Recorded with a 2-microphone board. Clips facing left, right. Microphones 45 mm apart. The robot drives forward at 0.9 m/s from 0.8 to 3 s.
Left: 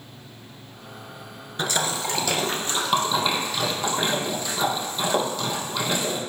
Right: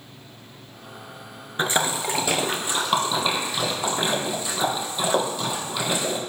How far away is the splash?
About 0.5 m.